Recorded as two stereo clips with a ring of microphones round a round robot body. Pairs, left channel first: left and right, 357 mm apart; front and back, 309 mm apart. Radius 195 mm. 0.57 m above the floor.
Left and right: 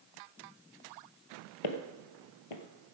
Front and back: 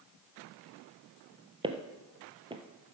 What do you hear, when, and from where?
1.6 s footsteps: 105° left, 1.1 m